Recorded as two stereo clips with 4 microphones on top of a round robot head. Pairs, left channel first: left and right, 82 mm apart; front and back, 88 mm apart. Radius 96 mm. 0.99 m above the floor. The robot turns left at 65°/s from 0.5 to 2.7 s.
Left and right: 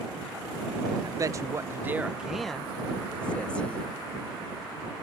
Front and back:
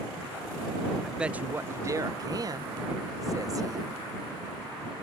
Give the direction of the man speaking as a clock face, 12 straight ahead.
3 o'clock.